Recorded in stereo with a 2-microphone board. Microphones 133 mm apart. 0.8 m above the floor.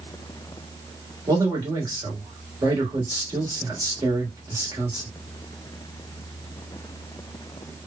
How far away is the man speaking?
About 1.6 m.